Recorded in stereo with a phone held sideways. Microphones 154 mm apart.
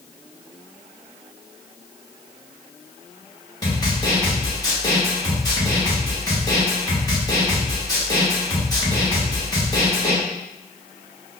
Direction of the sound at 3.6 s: 25° left (ahead or behind).